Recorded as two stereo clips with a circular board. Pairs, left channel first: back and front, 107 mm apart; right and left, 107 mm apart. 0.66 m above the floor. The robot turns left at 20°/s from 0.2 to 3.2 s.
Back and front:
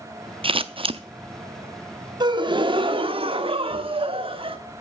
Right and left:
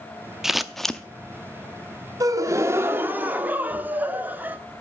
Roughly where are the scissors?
Ahead.